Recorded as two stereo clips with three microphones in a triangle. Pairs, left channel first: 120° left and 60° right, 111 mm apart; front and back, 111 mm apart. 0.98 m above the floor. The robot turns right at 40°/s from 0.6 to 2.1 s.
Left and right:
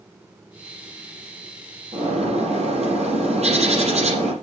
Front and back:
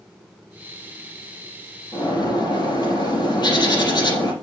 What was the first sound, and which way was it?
A bird, 55° right.